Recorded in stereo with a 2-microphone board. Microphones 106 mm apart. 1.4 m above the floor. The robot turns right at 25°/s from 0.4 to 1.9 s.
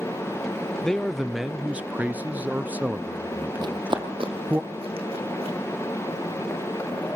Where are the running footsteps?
45° right (ahead or behind), 2.0 m; by 5.6 s 65° right (ahead or behind), 3.5 m.